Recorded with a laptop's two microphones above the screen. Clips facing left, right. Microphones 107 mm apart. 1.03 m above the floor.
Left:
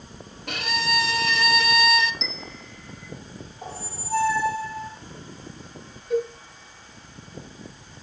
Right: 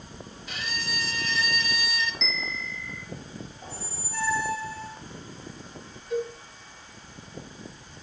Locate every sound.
0.5 s a violin: 65° left (ahead or behind), 0.6 m
2.2 s a bell: 30° left (ahead or behind), 2 m
3.6 s a squeak: 70° left (ahead or behind), 2 m
6.1 s a cowbell: 45° left (ahead or behind), 7 m